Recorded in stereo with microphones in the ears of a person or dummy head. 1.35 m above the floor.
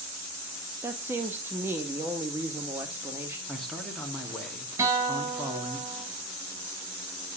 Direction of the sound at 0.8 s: 15° right (ahead or behind).